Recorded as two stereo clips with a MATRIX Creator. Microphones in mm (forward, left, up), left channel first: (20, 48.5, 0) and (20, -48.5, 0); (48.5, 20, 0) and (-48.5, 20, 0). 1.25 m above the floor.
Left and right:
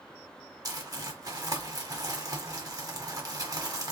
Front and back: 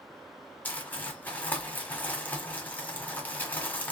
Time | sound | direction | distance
0.7 | crumpling | 65° right | 1.4 m